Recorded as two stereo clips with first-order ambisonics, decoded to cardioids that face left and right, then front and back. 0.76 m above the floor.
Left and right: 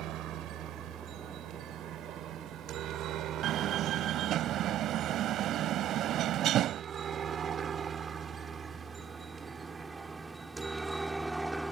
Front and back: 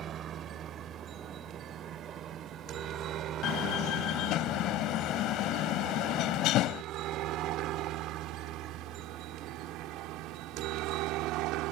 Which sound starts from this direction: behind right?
A helicopter, at 0.0 s.